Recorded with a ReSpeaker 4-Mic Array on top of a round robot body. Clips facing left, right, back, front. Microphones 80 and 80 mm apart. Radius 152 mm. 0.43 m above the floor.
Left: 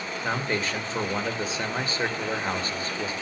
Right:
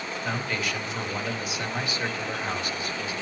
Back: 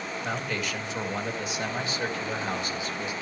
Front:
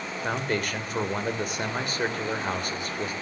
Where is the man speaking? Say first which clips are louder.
Left 3 dB, front 5 dB; 35° left, 2 m.